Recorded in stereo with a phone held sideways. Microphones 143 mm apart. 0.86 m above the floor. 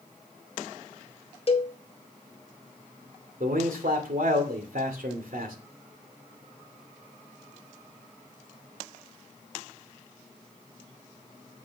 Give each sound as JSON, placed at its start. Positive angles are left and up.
{"t": 1.5, "sound": "a cowbell", "side_deg": 45, "distance_m": 0.9}
{"t": 3.4, "sound": "a man speaking", "side_deg": -80, "distance_m": 2.5}